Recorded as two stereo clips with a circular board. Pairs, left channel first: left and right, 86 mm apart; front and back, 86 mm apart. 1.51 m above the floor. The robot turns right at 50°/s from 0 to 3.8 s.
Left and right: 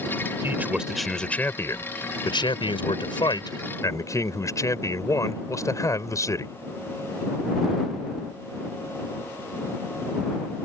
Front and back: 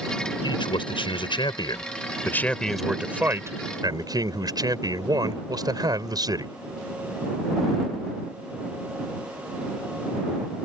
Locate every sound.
0.4 s a man speaking: 25° right; by 6.5 s 140° left